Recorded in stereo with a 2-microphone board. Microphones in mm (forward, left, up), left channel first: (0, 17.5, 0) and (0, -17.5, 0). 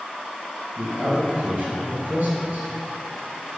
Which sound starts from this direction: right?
A man speaking, at 0.8 s.